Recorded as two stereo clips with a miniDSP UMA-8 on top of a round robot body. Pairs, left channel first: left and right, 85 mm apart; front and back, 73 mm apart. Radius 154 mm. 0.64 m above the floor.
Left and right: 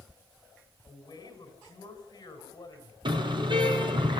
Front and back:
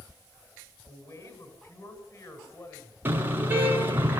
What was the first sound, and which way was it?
A woman speaking, 40° left.